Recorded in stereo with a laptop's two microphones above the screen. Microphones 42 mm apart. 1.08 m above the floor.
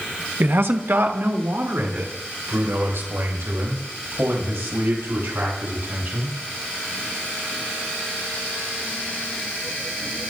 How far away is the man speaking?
About 1.0 m.